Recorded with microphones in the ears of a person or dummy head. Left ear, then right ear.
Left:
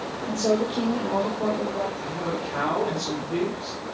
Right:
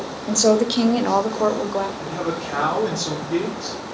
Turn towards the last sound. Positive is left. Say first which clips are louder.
# right 3 dB
turn(degrees=-50)  # may be behind; listen again after turning